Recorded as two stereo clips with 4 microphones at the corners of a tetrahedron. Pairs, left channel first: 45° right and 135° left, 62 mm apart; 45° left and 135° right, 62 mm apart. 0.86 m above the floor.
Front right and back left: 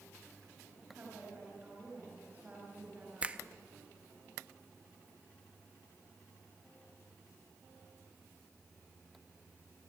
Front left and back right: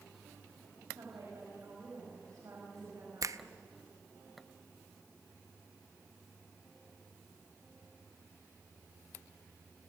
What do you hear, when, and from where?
0.9 s a woman speaking: 165° right, 6 m
3.2 s a finger snap: 155° right, 0.7 m